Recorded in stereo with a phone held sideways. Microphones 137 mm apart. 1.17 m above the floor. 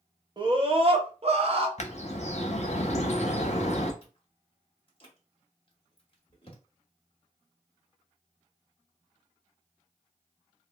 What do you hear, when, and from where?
0.4 s a scream: 35° right (ahead or behind), 0.8 m; by 1.7 s 45° right (ahead or behind), 0.8 m
1.8 s a bird: 55° left (ahead or behind), 0.7 m
4.0 s chewing: 40° left (ahead or behind), 0.9 m